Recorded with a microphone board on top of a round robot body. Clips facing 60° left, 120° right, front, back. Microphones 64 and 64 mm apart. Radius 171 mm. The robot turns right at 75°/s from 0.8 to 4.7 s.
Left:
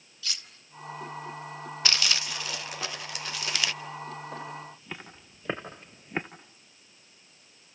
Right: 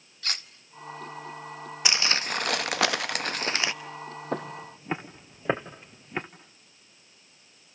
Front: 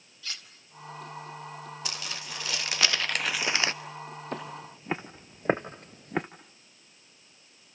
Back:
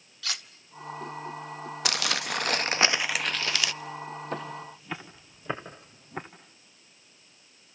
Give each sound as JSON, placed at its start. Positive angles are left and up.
{"t": 0.2, "sound": "cutlery clinking", "azimuth_deg": -165, "distance_m": 1.8}
{"t": 1.9, "sound": "crumpling", "azimuth_deg": 165, "distance_m": 1.5}
{"t": 4.3, "sound": "footsteps", "azimuth_deg": -90, "distance_m": 1.6}